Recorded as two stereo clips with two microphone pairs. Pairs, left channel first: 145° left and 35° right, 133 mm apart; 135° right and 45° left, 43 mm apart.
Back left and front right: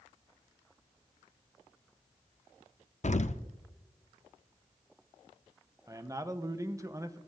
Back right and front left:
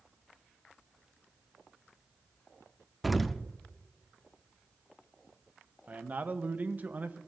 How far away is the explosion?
About 0.6 m.